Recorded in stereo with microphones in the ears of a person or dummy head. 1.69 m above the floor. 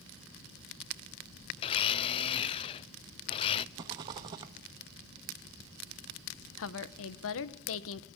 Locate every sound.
1.6 s a blender: 30° left (ahead or behind), 0.7 m
3.8 s a rattle: 20° right (ahead or behind), 1.1 m
6.6 s a woman speaking: 75° left (ahead or behind), 1.4 m